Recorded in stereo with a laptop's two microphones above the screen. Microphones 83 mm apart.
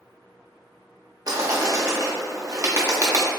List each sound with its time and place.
1.3 s a bird: 45° right (ahead or behind), 0.8 m